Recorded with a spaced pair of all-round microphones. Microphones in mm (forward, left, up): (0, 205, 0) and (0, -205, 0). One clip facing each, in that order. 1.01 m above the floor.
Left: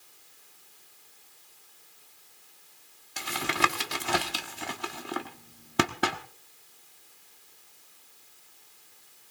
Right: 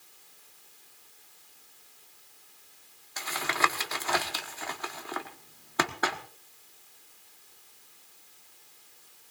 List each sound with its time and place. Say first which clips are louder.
3.2 s tapping: left 3 dB; 45° left (ahead or behind), 1.2 m